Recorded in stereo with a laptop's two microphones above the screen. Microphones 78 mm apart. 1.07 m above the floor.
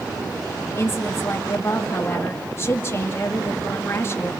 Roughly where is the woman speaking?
Left.